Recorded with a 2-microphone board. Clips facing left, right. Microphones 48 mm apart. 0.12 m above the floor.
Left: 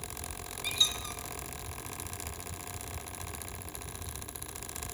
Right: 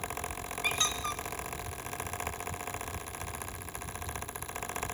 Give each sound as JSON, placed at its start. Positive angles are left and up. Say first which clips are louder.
{"t": 0.6, "sound": "a squeak", "louder": "right 2 dB", "side_deg": -50, "distance_m": 1.4}